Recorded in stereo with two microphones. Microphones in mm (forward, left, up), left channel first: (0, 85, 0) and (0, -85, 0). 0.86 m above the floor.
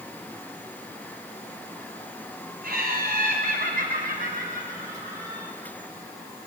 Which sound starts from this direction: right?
Laughter, at 2.6 s.